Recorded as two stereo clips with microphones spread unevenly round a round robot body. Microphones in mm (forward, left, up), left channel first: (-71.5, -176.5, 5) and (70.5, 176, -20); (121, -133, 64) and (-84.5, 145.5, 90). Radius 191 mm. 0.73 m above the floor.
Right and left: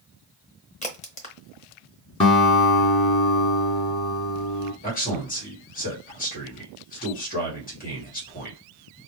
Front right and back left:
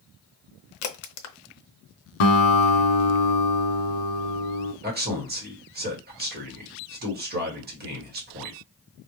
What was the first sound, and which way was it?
A crack, 40° right.